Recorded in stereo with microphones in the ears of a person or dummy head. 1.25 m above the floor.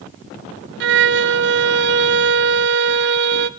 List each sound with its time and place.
0.8 s a violin: 50° right (ahead or behind), 0.5 m